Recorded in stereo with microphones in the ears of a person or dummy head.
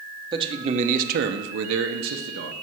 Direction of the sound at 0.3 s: 25° right (ahead or behind).